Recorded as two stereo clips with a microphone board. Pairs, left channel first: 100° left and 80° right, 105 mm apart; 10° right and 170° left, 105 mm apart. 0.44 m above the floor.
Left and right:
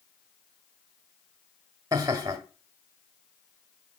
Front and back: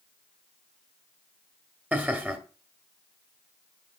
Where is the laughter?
120° right, 1.3 m.